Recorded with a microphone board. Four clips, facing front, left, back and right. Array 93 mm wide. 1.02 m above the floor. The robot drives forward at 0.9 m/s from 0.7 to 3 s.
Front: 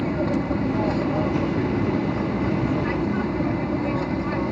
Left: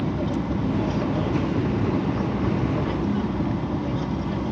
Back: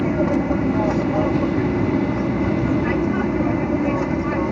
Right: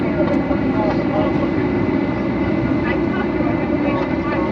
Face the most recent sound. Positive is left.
turn(degrees=-110)